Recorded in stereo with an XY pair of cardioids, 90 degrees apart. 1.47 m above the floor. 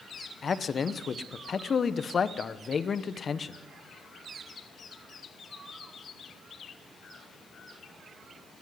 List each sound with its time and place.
0.4 s a man speaking: 45° left, 0.9 m